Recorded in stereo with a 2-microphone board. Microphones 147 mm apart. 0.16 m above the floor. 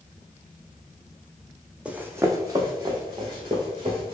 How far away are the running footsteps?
About 0.5 m.